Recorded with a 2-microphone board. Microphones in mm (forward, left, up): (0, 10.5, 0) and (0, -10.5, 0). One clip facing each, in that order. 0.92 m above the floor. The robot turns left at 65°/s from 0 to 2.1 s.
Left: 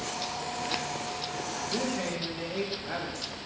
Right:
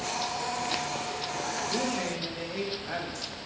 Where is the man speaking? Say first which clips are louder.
Left 1 dB; 25° right (ahead or behind), 1.3 m; by 3.4 s 5° right (ahead or behind), 1.3 m.